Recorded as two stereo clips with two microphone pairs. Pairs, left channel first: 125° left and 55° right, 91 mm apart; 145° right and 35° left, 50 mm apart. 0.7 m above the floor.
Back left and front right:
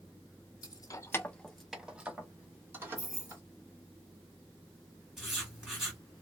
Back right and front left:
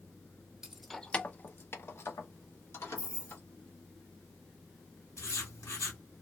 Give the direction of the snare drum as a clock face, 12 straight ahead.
I don't hear a snare drum.